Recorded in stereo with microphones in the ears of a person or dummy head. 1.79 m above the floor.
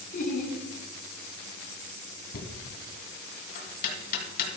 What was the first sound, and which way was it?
Laughter, 40° left (ahead or behind).